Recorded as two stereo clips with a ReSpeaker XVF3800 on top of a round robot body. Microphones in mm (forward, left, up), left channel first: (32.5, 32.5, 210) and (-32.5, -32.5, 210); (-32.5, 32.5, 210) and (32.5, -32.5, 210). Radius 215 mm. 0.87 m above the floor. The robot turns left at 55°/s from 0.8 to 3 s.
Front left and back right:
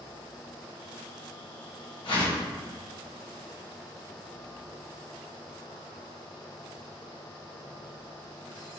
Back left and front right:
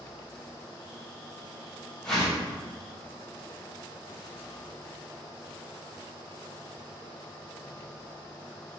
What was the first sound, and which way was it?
A whoosh, 55° left.